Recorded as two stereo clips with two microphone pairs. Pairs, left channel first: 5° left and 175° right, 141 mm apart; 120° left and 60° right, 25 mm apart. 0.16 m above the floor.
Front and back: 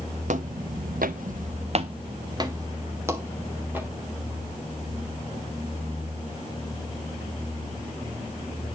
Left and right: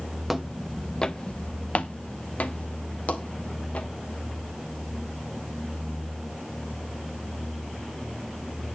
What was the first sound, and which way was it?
Footsteps, 140° right.